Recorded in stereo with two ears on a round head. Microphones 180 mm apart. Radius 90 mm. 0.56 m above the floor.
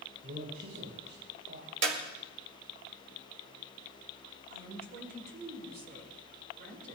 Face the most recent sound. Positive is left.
turn(degrees=-50)  # may be behind; listen again after turning